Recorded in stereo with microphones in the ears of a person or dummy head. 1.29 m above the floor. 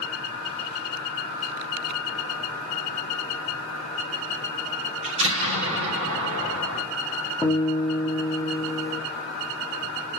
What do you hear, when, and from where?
5.0 s an explosion: 30° right (ahead or behind), 3 m
7.4 s a guitar: 5° right (ahead or behind), 1.0 m